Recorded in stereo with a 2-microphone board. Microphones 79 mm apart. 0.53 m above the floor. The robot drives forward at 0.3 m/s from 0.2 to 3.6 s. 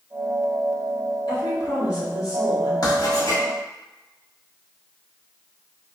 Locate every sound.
1.3 s a woman speaking: 60° left (ahead or behind), 1.9 m; by 2.7 s 55° left (ahead or behind), 2 m
2.8 s writing: 55° left (ahead or behind), 1.5 m; by 3.4 s 50° left (ahead or behind), 1.6 m